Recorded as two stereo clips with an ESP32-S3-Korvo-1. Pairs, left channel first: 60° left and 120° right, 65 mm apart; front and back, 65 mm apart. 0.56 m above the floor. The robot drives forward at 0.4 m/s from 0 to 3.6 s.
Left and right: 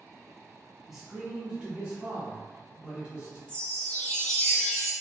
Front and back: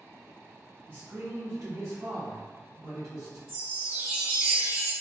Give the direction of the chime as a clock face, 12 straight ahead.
8 o'clock.